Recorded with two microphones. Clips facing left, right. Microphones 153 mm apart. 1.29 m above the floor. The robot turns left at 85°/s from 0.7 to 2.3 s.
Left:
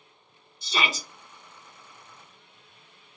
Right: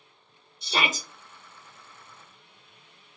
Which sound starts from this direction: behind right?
A shout, at 0.6 s.